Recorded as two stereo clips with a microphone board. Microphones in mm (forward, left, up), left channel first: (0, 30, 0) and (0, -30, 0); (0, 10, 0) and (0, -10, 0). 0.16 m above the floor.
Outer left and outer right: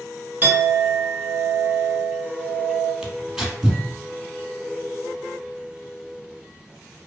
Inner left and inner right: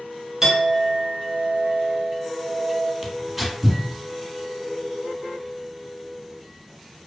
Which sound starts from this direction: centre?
Tearing paper, at 3.0 s.